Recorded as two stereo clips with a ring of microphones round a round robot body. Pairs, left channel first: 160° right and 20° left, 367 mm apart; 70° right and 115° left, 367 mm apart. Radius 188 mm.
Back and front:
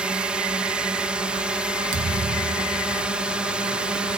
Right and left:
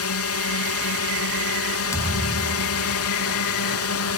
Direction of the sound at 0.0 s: 65° right.